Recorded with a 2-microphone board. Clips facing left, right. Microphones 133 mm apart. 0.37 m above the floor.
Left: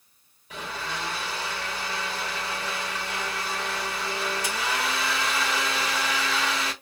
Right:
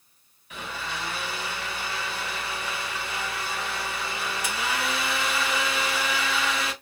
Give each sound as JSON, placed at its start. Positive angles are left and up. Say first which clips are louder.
{"t": 0.5, "sound": "a blender", "louder": "left 1 dB", "side_deg": 35, "distance_m": 2.5}